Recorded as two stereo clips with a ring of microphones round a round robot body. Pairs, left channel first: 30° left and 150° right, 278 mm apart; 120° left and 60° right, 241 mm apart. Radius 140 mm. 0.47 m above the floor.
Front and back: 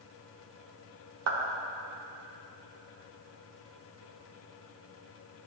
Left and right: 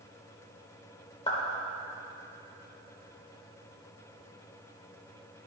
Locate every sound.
1.3 s a clap: 170° right, 1.0 m